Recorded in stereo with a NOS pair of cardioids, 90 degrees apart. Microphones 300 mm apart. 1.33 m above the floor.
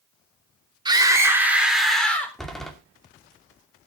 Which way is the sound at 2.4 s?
Straight ahead.